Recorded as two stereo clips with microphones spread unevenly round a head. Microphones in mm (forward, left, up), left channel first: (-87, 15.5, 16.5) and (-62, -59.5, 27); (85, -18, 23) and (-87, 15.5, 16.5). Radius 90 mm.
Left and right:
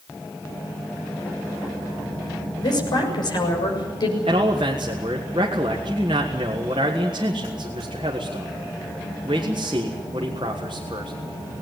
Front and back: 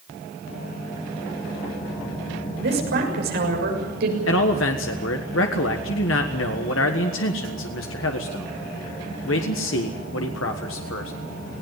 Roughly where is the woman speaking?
Behind left.